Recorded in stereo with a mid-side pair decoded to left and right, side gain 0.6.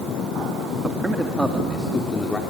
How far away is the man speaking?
About 2 m.